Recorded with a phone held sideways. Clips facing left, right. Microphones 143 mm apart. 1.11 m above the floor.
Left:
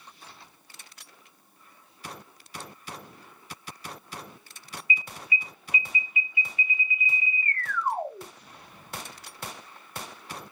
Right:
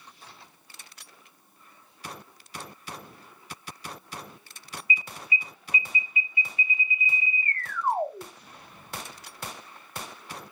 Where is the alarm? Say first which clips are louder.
Even; 30° right (ahead or behind), 1.9 m.